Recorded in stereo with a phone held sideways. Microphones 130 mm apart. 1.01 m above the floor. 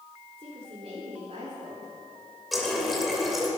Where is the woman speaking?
55° right (ahead or behind), 3.5 m; by 1.9 s 75° right (ahead or behind), 3 m.